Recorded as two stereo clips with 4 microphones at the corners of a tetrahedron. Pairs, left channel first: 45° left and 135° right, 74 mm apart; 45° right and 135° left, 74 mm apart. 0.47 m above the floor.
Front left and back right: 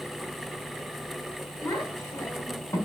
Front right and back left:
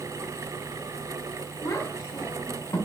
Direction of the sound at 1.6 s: Straight ahead.